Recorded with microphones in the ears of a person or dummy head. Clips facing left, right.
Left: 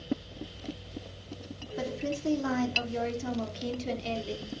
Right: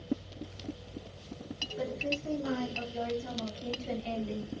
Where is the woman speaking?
85° left, 3 m; by 4.5 s 55° left (ahead or behind), 3.5 m.